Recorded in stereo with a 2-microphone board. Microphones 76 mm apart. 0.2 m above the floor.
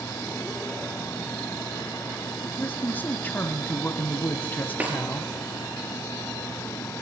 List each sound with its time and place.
2.4 s a man speaking: 25° left (ahead or behind), 1.1 m
4.8 s a snare drum: 20° right (ahead or behind), 3.5 m